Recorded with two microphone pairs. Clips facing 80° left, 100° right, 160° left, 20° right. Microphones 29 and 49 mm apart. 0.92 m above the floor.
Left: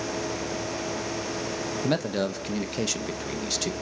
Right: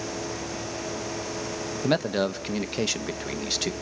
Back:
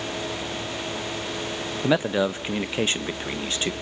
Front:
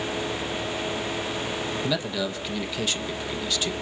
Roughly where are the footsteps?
No footsteps in this recording.